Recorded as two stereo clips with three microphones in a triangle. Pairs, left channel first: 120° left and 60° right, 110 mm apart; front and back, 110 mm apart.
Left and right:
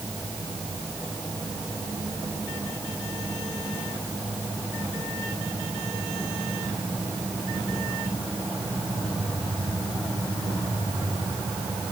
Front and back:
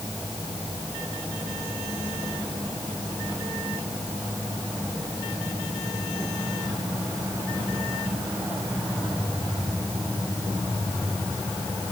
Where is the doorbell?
No doorbell in this recording.